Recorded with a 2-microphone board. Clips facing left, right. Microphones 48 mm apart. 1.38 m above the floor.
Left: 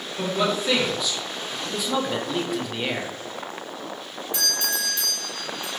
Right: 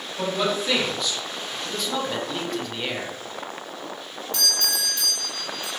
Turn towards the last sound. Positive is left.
turn(degrees=20)  # may be behind; listen again after turning